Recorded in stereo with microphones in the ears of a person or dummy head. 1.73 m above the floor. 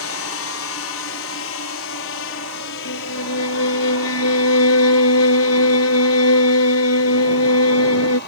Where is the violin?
85° left.